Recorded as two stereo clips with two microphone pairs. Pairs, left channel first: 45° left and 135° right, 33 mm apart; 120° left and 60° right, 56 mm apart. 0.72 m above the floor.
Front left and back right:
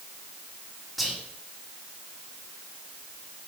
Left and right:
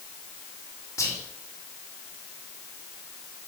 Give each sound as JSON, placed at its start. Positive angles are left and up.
{"t": 1.0, "sound": "whispering", "azimuth_deg": 140, "distance_m": 1.5}